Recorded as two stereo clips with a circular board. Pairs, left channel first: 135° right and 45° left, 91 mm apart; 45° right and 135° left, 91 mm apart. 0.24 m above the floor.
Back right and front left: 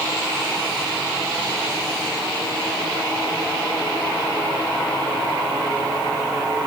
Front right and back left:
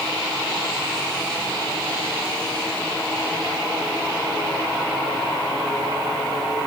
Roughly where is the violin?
No violin in this recording.